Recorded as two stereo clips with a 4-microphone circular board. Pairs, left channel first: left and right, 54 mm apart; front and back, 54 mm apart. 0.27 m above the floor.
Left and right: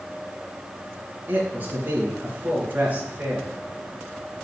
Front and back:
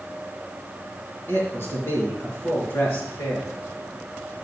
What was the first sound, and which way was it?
A man speaking, 35° right.